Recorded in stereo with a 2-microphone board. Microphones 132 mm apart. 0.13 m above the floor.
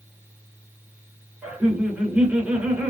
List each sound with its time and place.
1.4 s laughter: 10° right (ahead or behind), 2 m